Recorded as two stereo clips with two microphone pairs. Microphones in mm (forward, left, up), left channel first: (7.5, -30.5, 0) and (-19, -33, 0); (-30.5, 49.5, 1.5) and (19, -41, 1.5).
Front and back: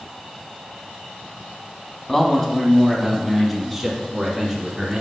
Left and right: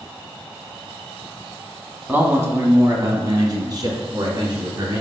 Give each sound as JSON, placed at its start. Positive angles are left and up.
{"t": 2.1, "sound": "a man speaking", "azimuth_deg": -30, "distance_m": 1.3}